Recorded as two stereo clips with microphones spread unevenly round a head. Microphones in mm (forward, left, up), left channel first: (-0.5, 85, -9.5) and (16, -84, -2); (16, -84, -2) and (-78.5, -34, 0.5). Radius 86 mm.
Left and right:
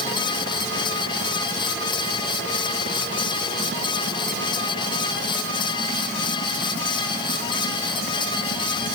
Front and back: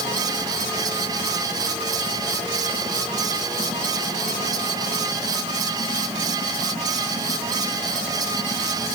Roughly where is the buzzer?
No buzzer in this recording.